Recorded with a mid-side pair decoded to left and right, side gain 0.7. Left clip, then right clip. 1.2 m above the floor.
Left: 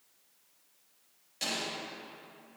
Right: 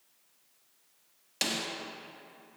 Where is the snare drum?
50° right, 1.3 m.